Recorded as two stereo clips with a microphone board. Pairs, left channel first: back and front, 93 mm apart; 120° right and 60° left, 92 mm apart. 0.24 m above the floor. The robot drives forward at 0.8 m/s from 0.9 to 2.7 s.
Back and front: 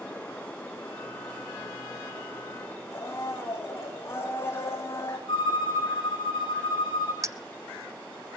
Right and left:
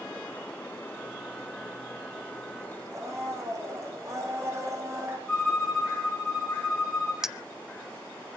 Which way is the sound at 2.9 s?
115° left.